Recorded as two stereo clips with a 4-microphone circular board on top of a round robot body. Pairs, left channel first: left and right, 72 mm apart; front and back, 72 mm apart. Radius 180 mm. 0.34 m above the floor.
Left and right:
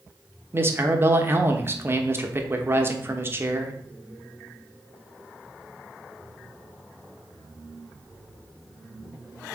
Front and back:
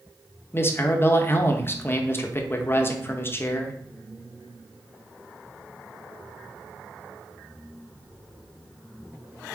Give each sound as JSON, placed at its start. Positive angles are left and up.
{"t": 0.5, "sound": "a man speaking", "azimuth_deg": -45, "distance_m": 1.3}